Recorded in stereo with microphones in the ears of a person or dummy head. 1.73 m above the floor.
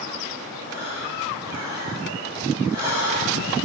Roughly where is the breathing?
Centre.